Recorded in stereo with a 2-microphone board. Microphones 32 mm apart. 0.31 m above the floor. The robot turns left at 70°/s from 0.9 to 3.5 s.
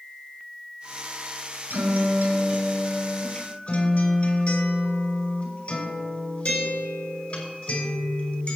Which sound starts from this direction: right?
A guitar, at 1.7 s.